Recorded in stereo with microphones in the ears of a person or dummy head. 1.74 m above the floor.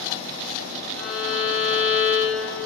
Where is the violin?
70° right (ahead or behind), 6 m.